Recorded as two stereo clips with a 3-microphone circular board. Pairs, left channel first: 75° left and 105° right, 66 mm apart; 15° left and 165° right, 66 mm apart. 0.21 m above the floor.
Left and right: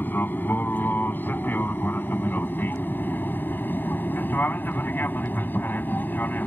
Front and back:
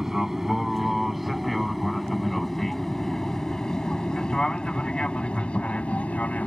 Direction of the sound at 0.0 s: 115° left.